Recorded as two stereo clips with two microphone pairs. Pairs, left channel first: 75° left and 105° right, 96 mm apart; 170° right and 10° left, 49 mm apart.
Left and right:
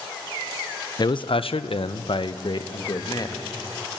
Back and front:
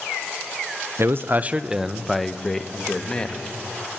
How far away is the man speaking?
About 0.7 m.